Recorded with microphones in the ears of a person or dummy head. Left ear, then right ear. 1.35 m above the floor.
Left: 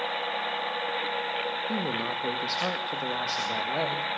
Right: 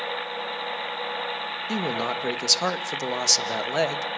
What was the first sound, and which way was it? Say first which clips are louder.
A man speaking: right 3 dB; 70° right (ahead or behind).